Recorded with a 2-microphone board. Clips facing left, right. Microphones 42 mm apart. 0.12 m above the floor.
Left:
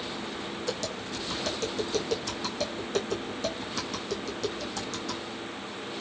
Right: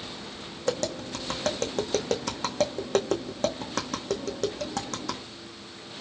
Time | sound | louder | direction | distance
0.7 | tapping | right 8 dB | 55° right (ahead or behind) | 1.4 m